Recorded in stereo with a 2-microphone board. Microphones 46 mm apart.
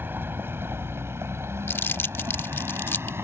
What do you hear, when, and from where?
0.0 s a vehicle: 55° right (ahead or behind); by 3.2 s 70° right (ahead or behind)
1.7 s crumpling: 60° left (ahead or behind)